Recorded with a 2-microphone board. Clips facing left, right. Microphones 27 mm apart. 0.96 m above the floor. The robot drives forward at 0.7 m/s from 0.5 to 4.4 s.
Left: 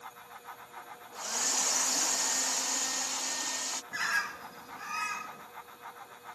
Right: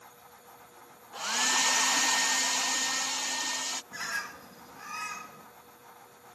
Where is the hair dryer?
50° right (ahead or behind); by 3.8 s 20° right (ahead or behind).